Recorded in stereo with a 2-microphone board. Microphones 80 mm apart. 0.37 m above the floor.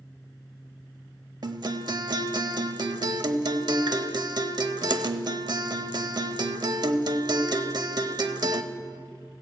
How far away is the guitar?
About 0.6 m.